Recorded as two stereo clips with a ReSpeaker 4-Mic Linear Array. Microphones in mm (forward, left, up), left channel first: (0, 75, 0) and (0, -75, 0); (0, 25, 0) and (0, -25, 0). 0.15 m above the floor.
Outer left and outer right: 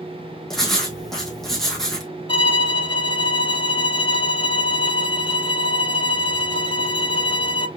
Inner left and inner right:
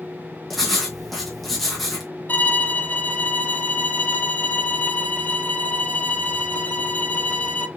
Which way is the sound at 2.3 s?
35° left (ahead or behind).